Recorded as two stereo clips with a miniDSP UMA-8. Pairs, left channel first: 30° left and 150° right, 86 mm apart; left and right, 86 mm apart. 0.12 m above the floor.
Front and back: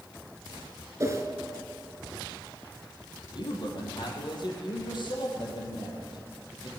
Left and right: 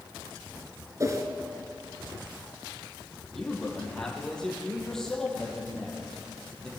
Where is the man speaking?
5° left, 4 m.